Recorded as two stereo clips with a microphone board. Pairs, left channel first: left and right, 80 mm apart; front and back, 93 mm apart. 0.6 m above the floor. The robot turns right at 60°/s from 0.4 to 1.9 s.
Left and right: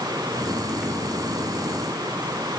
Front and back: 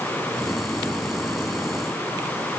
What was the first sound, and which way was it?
Only background noise.